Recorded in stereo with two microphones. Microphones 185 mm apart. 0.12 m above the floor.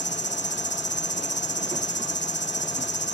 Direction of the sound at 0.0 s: 75° left (ahead or behind).